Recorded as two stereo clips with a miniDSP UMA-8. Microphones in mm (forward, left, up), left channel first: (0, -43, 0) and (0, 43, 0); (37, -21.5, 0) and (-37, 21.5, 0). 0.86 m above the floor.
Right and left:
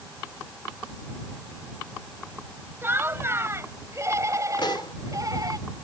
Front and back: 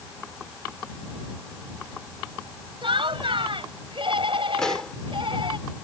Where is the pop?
115° right.